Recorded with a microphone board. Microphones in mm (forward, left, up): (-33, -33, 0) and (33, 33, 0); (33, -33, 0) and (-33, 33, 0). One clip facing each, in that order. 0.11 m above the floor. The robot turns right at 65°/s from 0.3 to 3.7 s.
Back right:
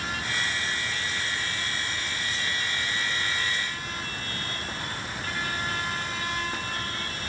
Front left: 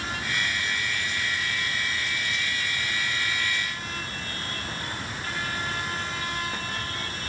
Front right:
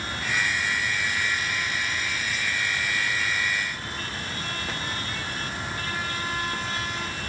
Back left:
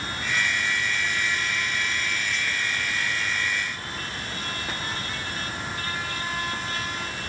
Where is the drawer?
I don't hear a drawer.